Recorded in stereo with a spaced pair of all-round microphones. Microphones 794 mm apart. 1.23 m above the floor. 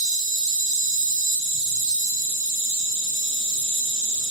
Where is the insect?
45° right (ahead or behind), 1.6 m.